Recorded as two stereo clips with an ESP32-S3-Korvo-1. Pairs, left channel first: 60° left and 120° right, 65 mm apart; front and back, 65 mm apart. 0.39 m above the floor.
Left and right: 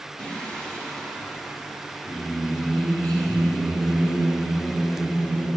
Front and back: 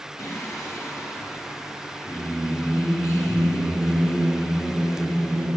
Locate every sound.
0.2 s singing: 10° right, 1.4 m